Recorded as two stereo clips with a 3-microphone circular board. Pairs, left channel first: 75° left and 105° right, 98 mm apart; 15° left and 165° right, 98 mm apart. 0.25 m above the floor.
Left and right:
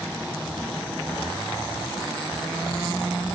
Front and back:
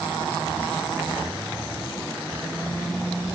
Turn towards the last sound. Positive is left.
No sound to turn to.